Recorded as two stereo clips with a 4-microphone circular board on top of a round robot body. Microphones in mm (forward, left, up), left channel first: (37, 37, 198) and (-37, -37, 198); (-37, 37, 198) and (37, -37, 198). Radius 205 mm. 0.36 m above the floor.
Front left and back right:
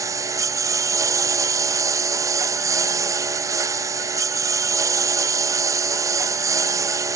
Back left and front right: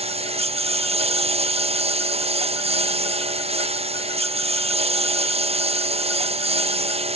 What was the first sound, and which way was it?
A lawn mower, 75° right.